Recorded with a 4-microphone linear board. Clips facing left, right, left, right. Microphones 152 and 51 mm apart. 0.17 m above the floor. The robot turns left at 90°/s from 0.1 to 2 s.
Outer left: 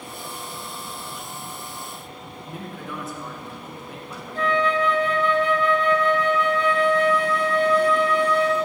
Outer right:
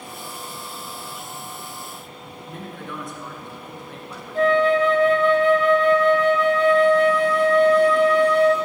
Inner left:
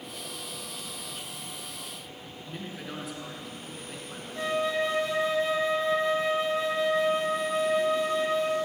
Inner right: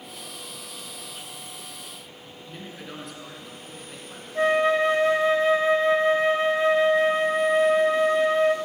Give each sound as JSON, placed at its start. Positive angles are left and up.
{"t": 2.5, "sound": "a man speaking", "side_deg": 5, "distance_m": 1.9}
{"t": 4.3, "sound": "a flute", "side_deg": -40, "distance_m": 0.6}